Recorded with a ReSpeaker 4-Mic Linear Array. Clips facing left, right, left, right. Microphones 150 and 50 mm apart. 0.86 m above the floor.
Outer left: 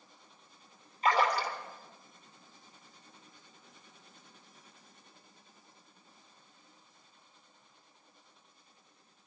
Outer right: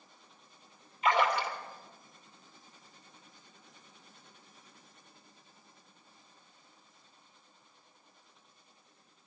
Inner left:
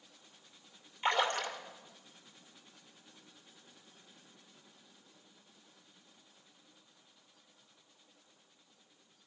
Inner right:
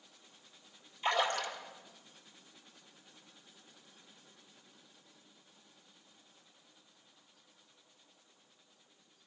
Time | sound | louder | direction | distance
1.0 | a splash | even, inner left 1 dB | 40° left (ahead or behind) | 2.0 m